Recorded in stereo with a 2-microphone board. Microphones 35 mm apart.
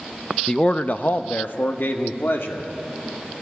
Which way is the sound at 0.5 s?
20° left (ahead or behind).